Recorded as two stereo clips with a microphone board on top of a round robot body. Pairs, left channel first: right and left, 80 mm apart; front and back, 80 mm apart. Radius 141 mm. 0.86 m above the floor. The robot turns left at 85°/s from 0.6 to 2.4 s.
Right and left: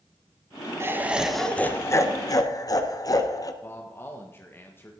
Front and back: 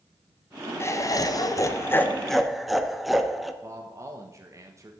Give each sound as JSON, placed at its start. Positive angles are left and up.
{"t": 0.8, "sound": "laughter", "azimuth_deg": 45, "distance_m": 1.3}
{"t": 3.6, "sound": "a man speaking", "azimuth_deg": -145, "distance_m": 1.4}